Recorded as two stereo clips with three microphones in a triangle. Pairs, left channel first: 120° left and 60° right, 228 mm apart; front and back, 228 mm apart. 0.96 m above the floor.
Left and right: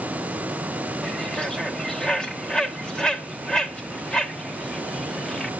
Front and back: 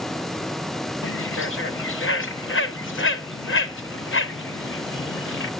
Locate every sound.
1.0 s a bird: 35° left, 0.7 m